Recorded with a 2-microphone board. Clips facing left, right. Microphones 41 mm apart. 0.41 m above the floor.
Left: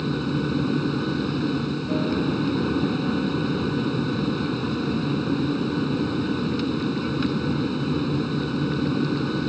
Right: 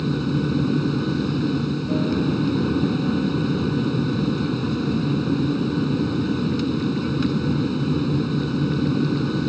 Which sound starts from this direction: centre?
An aircraft, at 0.0 s.